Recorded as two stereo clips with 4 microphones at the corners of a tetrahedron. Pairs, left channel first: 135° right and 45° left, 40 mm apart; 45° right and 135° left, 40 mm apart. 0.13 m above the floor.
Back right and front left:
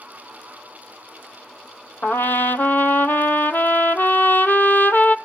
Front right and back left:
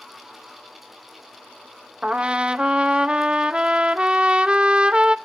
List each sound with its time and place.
2.0 s a trumpet: 165° right, 0.7 m